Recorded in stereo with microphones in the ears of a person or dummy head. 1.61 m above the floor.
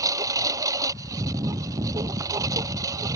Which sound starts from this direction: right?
A lawn mower, at 0.0 s.